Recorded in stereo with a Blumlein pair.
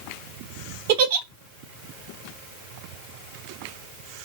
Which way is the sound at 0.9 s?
50° right.